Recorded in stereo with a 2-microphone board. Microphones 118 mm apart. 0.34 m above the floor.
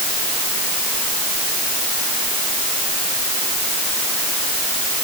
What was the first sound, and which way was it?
Only background noise.